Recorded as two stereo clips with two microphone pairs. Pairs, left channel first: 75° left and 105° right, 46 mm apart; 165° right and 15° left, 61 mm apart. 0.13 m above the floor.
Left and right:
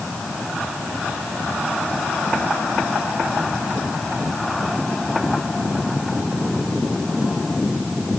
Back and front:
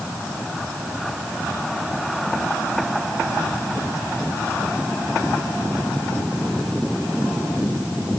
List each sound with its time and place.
Only background noise.